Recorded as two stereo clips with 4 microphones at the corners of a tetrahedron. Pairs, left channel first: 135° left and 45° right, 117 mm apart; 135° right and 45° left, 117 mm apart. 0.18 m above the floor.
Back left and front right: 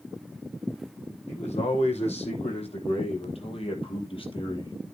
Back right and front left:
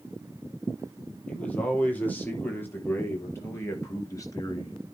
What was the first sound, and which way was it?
A man speaking, 145° left.